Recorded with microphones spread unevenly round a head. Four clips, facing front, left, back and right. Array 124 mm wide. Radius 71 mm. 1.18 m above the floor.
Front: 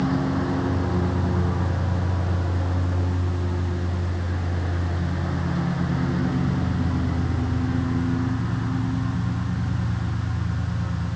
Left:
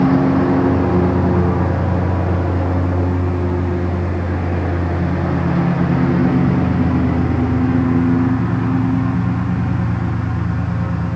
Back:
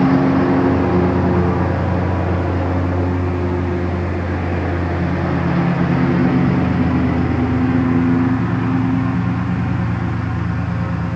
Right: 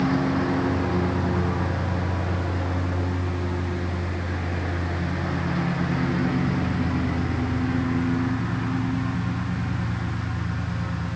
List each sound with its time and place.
0.0 s a lawn mower: 140° left